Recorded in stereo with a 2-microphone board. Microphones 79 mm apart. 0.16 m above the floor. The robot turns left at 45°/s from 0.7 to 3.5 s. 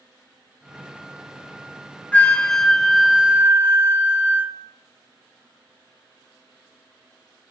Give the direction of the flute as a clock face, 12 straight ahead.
11 o'clock.